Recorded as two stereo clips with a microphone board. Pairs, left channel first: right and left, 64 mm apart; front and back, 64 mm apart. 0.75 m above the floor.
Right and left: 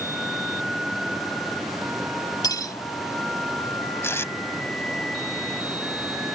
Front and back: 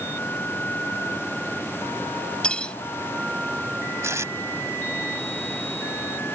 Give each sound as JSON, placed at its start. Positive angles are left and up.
{"t": 2.4, "sound": "cutlery clinking", "azimuth_deg": -75}
{"t": 4.0, "sound": "tape being pulled", "azimuth_deg": -140}